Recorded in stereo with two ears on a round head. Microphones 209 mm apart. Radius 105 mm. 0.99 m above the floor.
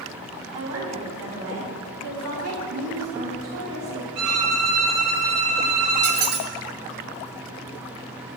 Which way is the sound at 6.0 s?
50° right (ahead or behind).